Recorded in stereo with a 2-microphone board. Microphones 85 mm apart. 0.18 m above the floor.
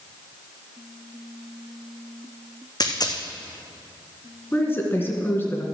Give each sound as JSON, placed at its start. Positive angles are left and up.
{"t": 2.8, "sound": "a dropped coin", "side_deg": 55, "distance_m": 1.6}
{"t": 4.5, "sound": "a woman speaking", "side_deg": 25, "distance_m": 2.5}